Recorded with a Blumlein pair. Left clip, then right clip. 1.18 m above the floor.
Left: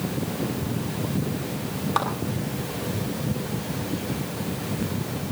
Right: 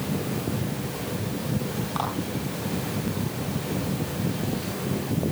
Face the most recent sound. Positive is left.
turn(degrees=65)